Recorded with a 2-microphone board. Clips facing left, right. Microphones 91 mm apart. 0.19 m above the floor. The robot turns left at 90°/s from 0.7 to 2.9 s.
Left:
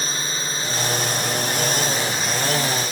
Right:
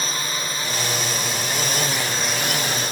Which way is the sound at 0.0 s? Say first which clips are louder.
Right 1 dB; 30° left (ahead or behind).